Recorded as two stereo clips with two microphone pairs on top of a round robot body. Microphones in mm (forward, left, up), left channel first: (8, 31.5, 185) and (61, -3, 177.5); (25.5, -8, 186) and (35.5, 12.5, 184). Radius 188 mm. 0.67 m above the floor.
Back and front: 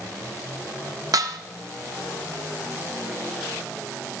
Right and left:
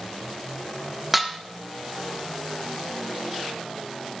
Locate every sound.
1.1 s dishes clattering: 15° right, 1.0 m